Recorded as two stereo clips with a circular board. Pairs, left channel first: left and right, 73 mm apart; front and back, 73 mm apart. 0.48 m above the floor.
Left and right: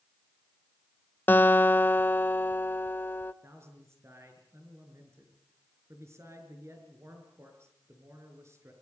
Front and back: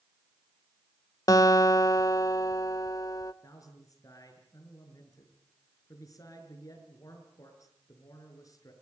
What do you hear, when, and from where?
1.3 s a guitar: 30° left, 0.9 m
3.4 s a man speaking: 40° right, 6 m